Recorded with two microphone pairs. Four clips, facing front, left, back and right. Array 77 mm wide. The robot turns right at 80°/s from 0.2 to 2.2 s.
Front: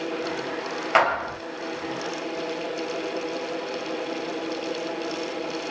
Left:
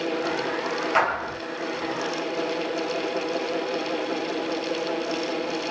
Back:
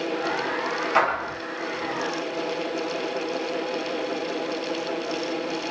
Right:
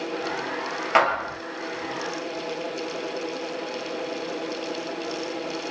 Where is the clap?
45° right, 2.0 m; by 1.3 s 15° right, 2.0 m.